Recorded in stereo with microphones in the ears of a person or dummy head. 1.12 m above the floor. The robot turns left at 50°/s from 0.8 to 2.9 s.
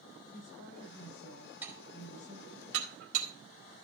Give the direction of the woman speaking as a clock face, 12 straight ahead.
8 o'clock.